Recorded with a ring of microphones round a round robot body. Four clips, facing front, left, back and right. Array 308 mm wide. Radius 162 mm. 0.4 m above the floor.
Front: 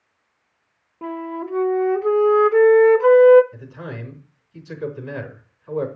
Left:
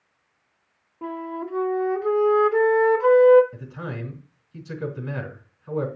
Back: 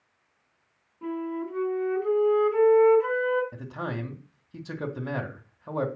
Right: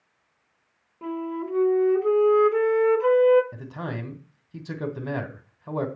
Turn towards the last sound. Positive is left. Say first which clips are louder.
# right 1 dB, back 1 dB
turn(degrees=-135)